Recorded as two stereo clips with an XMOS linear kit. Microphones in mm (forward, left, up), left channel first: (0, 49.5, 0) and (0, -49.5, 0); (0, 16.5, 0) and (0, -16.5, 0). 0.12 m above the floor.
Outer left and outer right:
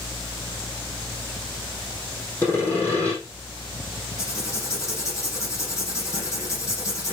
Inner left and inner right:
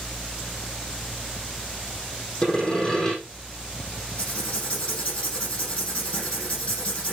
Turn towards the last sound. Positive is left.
turn(degrees=30)  # may be behind; listen again after turning